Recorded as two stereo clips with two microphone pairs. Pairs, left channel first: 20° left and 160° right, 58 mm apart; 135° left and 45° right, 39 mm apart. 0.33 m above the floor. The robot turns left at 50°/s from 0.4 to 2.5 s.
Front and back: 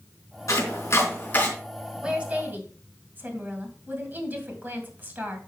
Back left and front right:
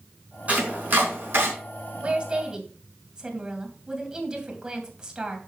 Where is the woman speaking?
90° right, 2.5 m; by 5.4 s 115° right, 2.5 m.